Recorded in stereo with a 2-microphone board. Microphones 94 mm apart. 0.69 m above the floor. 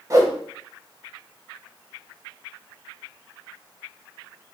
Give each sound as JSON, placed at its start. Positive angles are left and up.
{"t": 0.1, "sound": "a whoosh", "side_deg": -35, "distance_m": 0.6}